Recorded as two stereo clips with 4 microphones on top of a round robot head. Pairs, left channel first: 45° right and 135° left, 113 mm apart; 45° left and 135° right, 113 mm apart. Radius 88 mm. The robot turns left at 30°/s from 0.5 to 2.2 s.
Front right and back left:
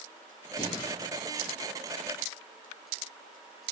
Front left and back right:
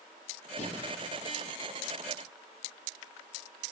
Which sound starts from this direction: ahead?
Breathing, at 0.6 s.